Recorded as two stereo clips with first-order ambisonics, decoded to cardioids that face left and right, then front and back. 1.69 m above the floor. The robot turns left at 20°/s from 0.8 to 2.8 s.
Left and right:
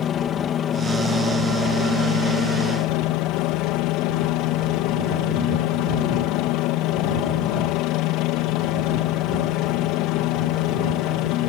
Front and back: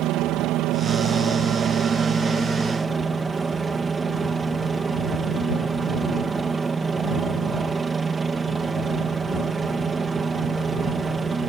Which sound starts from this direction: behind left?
A helicopter, at 0.0 s.